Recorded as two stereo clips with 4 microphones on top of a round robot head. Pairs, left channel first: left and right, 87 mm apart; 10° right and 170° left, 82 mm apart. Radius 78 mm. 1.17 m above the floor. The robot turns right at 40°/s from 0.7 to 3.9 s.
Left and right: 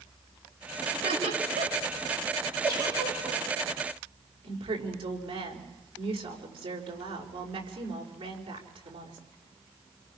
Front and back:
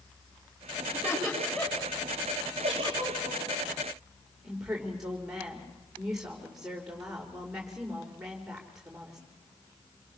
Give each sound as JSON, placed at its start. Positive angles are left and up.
{"t": 0.9, "sound": "laughter", "azimuth_deg": -115, "distance_m": 6.5}
{"t": 2.6, "sound": "a giggle", "azimuth_deg": -150, "distance_m": 5.5}
{"t": 4.4, "sound": "a woman speaking", "azimuth_deg": -105, "distance_m": 5.0}